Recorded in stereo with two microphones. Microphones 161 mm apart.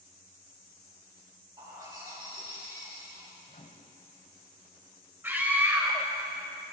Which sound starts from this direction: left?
A microwave, at 3.5 s.